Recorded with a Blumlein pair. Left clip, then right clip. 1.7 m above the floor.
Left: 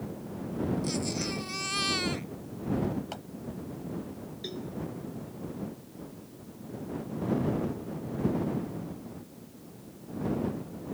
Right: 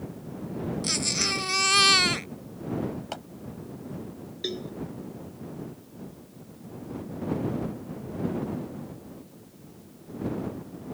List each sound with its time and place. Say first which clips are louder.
0.8 s a baby crying: right 7 dB; 60° right
3.1 s a clap: right 4 dB; 15° right
4.4 s a cowbell: right 7 dB; 65° right